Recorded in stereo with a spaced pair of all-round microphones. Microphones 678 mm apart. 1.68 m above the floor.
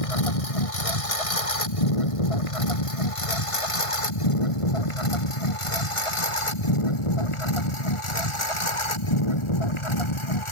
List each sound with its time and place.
0.0 s a lawn mower: 55° left (ahead or behind); by 10.5 s 45° left (ahead or behind)